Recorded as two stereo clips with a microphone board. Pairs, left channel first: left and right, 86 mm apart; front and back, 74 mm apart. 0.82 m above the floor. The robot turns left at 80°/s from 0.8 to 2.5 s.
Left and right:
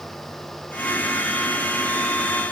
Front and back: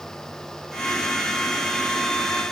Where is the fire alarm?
No fire alarm in this recording.